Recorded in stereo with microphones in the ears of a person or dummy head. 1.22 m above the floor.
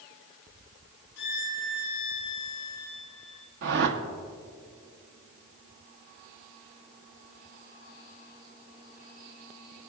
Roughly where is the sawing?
I don't hear sawing.